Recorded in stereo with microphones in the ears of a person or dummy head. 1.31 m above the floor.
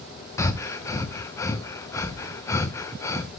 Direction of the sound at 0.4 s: 25° left (ahead or behind).